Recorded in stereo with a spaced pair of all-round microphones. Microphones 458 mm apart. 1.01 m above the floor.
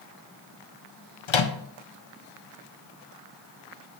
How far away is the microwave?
About 0.6 m.